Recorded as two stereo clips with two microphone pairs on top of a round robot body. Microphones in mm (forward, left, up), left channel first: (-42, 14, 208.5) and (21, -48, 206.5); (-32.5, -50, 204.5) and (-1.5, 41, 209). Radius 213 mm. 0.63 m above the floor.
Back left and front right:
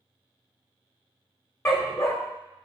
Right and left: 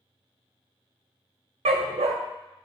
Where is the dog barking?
75° left, 0.8 m.